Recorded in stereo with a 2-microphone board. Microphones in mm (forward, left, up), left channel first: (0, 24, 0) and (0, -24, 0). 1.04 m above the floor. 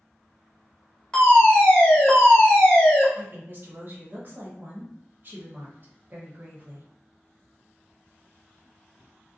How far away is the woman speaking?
About 1.0 m.